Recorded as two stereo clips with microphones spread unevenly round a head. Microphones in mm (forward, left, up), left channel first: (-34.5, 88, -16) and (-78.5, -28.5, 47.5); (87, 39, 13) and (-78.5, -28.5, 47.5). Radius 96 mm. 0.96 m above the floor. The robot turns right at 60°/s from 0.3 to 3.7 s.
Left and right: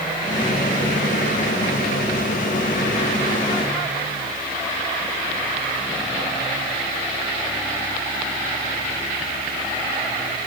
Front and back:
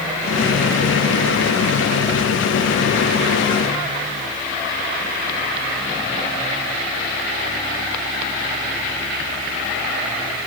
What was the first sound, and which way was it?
Only background noise.